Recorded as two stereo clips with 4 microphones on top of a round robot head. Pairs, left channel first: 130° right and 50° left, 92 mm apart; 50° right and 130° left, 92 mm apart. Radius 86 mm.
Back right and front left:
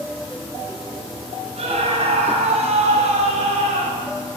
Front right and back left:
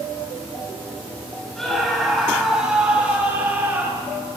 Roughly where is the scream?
Ahead left.